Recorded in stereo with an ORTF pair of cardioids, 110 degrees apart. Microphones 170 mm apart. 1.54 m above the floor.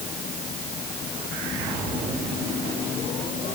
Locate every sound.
Only background noise.